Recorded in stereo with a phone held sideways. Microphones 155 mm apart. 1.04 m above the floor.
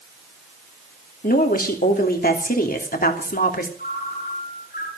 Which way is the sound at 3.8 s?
80° left.